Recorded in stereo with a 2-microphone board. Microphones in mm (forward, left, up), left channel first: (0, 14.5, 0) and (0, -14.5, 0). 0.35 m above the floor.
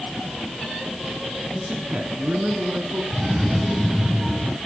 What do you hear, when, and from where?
1.6 s a man speaking: 35° right (ahead or behind), 3.5 m; by 3.0 s 60° right (ahead or behind), 4 m
3.1 s a cough: 5° right (ahead or behind), 3 m